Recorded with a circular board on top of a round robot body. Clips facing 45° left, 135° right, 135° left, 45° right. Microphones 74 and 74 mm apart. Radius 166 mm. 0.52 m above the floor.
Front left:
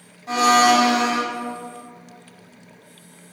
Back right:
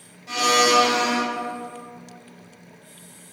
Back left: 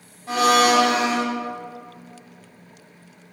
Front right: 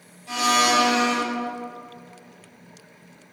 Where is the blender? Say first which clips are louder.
Front left 4 dB, back left 4 dB; 90° left, 1.8 m.